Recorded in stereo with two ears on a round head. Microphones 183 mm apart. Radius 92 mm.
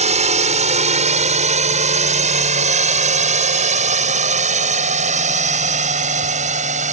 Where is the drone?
35° right (ahead or behind).